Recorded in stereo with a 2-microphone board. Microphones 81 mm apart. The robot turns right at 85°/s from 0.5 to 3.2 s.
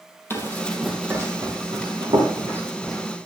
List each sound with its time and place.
0.3 s running footsteps: 25° left (ahead or behind), 2.5 m